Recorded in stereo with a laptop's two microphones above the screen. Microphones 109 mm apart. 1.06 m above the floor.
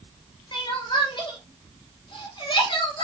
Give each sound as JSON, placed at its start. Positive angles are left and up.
{"t": 0.5, "sound": "crying", "side_deg": 45, "distance_m": 3.0}